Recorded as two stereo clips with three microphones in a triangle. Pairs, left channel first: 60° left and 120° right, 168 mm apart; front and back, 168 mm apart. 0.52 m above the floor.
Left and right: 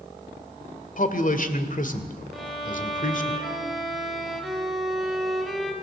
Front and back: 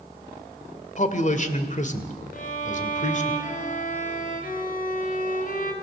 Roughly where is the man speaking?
Ahead left.